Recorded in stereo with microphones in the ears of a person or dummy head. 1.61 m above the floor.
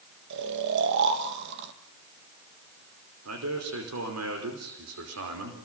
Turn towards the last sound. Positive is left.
turn(degrees=-85)